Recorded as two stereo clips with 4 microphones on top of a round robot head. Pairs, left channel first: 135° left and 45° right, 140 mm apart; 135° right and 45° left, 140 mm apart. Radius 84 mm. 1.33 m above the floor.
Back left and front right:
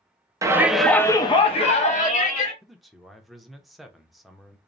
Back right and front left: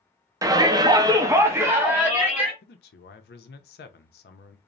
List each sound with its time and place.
0.4 s a shout: straight ahead, 0.6 m; by 2.5 s 125° left, 1.2 m
2.6 s a man speaking: 135° right, 0.5 m